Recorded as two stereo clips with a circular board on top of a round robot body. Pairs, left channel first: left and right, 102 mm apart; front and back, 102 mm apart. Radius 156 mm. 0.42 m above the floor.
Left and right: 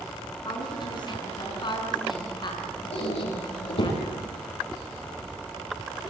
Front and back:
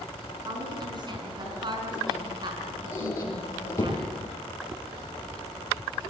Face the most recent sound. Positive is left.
turn(degrees=65)